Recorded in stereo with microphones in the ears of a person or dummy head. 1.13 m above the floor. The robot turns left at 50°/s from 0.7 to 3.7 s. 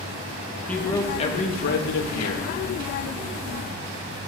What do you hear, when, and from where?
0.7 s a man speaking: 175° left, 1.6 m; by 2.5 s 85° left, 1.6 m